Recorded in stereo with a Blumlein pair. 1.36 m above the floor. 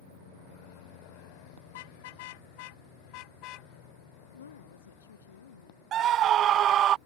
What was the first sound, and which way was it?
A car horn, 50° left.